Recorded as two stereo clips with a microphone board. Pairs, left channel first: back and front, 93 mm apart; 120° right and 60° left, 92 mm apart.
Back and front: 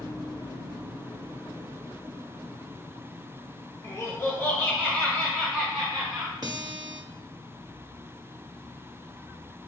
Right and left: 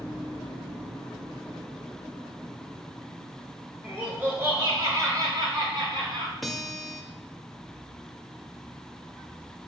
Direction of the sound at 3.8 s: 130° left.